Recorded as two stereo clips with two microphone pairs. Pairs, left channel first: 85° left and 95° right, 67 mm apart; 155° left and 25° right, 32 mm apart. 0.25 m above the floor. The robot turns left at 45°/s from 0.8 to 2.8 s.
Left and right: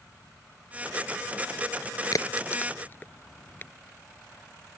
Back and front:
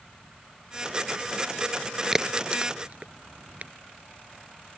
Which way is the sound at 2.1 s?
55° left.